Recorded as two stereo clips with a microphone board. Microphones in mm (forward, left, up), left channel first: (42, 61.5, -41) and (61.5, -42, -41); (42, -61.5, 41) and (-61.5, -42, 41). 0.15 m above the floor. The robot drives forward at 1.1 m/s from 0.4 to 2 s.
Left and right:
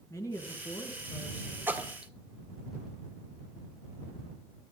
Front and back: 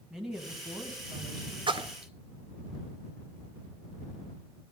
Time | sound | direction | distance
0.1 | a woman speaking | 90° left | 1.3 m
1.7 | a splash | 145° right | 0.5 m